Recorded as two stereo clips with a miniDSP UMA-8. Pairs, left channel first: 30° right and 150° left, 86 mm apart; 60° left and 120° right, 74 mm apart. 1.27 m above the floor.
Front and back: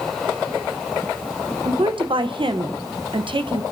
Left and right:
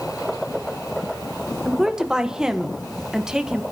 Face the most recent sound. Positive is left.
turn(degrees=160)